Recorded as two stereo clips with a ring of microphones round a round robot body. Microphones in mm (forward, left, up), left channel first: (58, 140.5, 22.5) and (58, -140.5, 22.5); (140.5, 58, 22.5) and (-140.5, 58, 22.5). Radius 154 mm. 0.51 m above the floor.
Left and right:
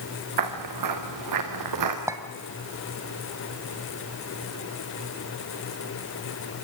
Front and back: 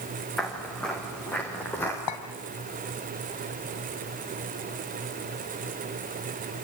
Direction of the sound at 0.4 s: 90° right.